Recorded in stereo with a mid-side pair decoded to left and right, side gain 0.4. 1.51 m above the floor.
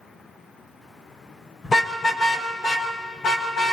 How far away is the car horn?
About 4 m.